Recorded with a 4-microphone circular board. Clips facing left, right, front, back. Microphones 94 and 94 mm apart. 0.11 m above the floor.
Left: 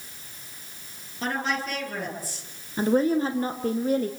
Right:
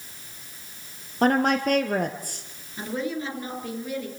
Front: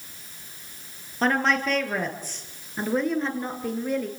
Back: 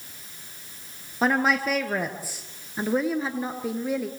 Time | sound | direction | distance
1.2 | a woman speaking | 100° right | 2.5 m
2.8 | a woman speaking | 100° left | 2 m